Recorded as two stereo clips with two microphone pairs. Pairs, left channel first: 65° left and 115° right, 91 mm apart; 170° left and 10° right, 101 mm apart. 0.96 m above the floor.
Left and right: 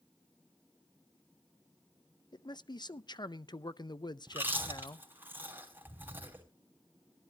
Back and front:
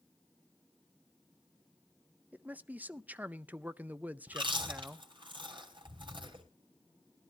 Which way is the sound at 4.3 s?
45° right.